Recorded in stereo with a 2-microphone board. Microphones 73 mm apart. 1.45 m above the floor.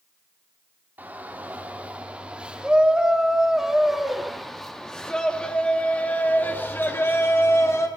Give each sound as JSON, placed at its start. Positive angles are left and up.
{"t": 1.0, "sound": "a shout", "side_deg": -25, "distance_m": 4.5}